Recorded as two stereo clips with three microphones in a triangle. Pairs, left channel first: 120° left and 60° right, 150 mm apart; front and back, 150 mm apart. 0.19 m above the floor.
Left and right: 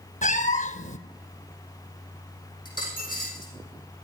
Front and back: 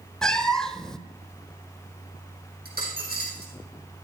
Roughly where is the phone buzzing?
I don't hear a phone buzzing.